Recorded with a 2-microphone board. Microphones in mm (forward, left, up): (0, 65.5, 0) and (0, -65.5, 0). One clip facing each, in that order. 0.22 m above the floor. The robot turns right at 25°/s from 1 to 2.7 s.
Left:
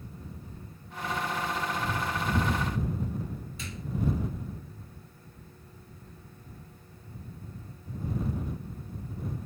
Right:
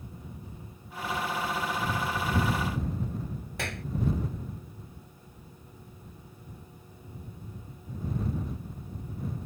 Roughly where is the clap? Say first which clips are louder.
Right 5 dB; right.